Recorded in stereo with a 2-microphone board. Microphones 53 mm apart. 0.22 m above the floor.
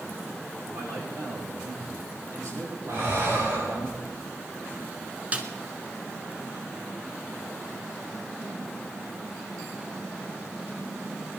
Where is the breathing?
50° right (ahead or behind), 5 m.